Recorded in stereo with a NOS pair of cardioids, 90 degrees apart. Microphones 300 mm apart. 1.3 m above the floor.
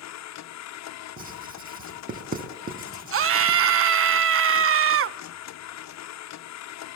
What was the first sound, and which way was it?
A machine running, 65° left.